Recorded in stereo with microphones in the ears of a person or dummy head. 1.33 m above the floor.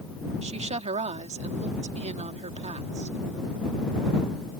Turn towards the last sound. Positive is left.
turn(degrees=-30)  # may be behind; listen again after turning